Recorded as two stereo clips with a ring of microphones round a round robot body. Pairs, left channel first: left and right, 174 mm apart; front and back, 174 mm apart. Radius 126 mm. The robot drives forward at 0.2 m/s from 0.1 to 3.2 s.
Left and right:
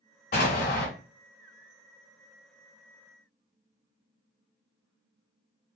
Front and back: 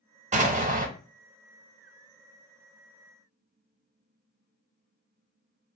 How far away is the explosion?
About 0.6 m.